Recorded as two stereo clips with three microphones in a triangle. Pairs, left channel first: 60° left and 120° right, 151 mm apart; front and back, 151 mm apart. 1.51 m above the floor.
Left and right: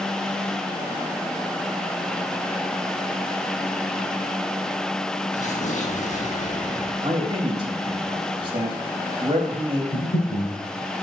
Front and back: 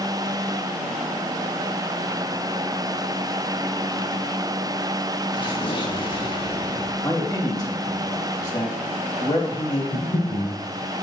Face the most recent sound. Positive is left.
turn(degrees=75)